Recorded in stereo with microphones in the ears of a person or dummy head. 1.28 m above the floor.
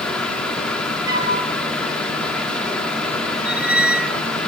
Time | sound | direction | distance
0.0 | a fan | 5° left (ahead or behind) | 2.5 m
1.1 | a flute | 25° right (ahead or behind) | 9 m
3.5 | a squeak | 5° right (ahead or behind) | 0.9 m